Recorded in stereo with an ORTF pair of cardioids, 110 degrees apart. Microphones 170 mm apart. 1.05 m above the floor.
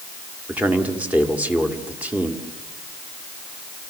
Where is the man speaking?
10° right, 2.5 m.